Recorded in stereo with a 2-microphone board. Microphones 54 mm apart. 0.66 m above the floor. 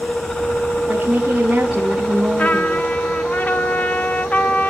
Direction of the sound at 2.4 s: 30° left (ahead or behind).